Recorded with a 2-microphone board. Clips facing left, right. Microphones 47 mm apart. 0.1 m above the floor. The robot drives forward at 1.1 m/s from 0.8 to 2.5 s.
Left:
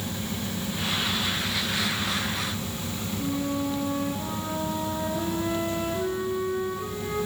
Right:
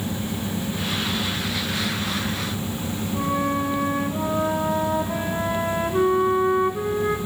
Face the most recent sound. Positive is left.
turn(degrees=-55)  # may be behind; listen again after turning